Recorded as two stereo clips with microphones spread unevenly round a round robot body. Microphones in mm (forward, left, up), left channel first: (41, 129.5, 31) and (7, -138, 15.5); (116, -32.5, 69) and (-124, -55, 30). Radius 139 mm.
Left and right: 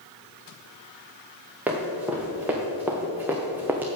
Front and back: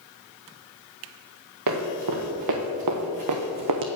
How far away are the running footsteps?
About 2.5 m.